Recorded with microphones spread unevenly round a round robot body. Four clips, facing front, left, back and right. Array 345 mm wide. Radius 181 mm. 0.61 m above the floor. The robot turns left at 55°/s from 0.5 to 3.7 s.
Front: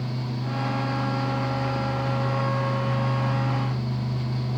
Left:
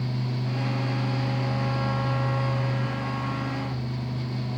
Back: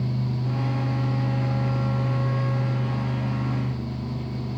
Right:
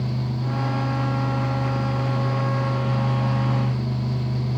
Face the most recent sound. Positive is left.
No sound to turn to.